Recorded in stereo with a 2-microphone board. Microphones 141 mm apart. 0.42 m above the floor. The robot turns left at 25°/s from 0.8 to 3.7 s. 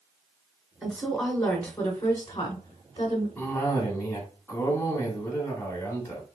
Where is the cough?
10° left (ahead or behind), 1.2 m; by 6.2 s 15° left (ahead or behind), 1.2 m.